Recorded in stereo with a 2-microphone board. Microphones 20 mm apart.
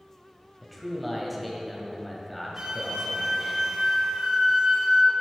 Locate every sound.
0.6 s a man speaking: centre (ahead or behind), 1.7 m
2.6 s a flute: 50° right (ahead or behind), 1.3 m